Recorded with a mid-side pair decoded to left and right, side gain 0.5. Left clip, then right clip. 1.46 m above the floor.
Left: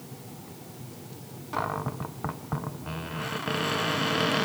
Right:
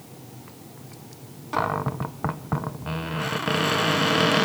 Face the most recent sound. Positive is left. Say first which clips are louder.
# right 5 dB
turn(degrees=-35)